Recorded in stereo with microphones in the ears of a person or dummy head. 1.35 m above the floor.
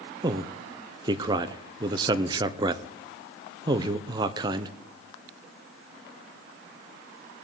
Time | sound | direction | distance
0.2 | a man speaking | 25° right (ahead or behind) | 0.5 m